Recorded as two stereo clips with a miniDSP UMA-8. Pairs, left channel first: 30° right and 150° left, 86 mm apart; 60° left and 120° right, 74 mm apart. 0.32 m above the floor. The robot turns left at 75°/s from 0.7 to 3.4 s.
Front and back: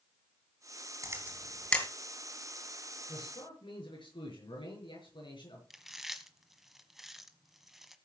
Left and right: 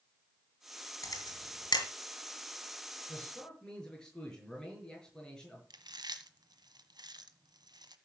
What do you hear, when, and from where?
1.0 s a camera shutter: 100° left, 3.5 m; by 1.9 s 40° left, 3.5 m
3.1 s a man speaking: 5° left, 6.5 m; by 5.6 s 20° right, 6.5 m
5.7 s chewing: 125° right, 1.3 m